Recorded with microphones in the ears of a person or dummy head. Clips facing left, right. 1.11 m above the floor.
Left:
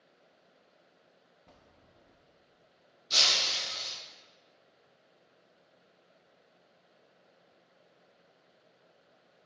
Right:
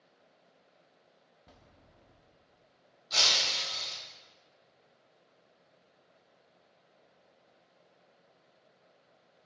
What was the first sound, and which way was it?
A bell, centre (ahead or behind).